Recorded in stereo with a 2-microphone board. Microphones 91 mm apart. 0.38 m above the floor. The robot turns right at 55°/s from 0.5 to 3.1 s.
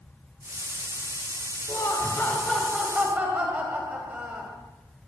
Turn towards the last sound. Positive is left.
turn(degrees=-155)